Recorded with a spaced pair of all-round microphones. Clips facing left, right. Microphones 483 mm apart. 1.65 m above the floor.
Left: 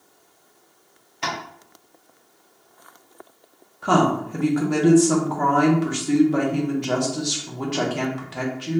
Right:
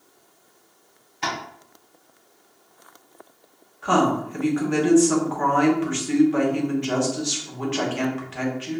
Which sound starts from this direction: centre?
Tapping, at 1.2 s.